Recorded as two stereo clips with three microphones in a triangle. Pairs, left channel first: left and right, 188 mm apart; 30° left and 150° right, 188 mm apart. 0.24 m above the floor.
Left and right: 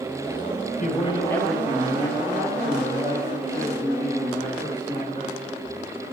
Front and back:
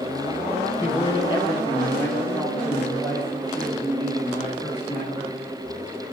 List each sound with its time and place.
0.8 s a man speaking: 85° left, 1.2 m; by 5.4 s 60° right, 5 m